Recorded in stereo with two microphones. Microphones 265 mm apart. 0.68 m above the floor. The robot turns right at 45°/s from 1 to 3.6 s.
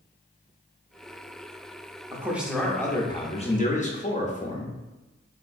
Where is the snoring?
I don't hear snoring.